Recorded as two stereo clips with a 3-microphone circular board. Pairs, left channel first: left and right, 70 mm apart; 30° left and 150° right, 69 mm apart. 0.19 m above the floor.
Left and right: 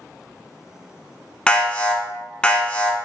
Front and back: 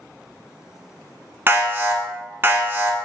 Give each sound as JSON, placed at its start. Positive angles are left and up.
{"t": 1.5, "sound": "an alarm", "azimuth_deg": 160, "distance_m": 1.1}